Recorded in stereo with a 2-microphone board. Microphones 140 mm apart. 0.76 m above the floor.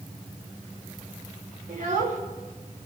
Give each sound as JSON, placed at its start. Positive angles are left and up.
{"t": 1.7, "sound": "a child speaking", "side_deg": -70, "distance_m": 2.0}